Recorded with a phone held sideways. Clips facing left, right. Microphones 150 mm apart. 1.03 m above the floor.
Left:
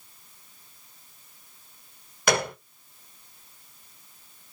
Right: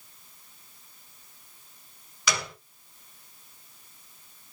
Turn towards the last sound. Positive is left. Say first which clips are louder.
# left 8 dB
turn(degrees=55)  # may be behind; listen again after turning